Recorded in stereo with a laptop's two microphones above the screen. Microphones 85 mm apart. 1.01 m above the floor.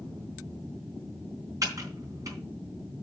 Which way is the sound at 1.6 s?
45° right (ahead or behind).